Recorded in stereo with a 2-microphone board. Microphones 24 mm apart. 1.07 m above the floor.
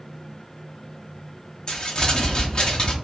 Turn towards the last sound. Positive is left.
turn(degrees=35)  # may be behind; listen again after turning